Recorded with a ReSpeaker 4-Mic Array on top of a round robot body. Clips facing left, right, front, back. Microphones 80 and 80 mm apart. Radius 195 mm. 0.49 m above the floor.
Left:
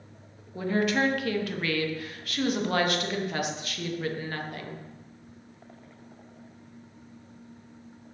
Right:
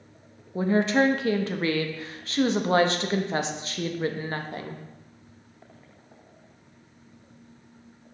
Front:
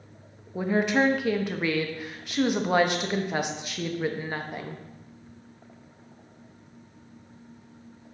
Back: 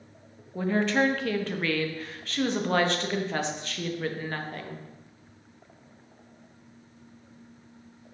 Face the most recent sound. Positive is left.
turn(degrees=-65)